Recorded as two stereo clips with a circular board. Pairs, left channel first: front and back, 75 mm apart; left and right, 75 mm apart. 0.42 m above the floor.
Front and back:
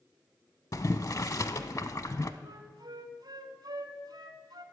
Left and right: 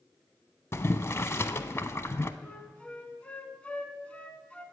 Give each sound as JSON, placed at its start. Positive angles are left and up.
{"t": 0.7, "sound": "boiling", "azimuth_deg": 40, "distance_m": 0.5}
{"t": 2.4, "sound": "a flute", "azimuth_deg": 165, "distance_m": 0.9}